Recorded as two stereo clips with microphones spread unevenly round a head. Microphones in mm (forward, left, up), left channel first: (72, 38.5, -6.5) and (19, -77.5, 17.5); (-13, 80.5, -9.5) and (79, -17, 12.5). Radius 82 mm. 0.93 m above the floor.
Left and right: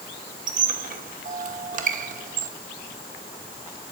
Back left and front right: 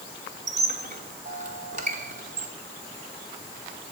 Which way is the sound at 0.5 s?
95° right.